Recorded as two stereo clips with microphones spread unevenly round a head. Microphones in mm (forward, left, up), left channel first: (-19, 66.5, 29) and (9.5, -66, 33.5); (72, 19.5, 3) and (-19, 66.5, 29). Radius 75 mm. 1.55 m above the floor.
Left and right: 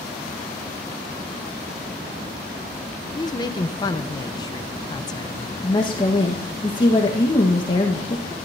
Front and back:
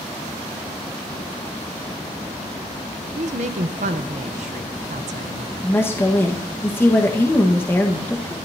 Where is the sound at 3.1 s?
165° left, 1.0 m.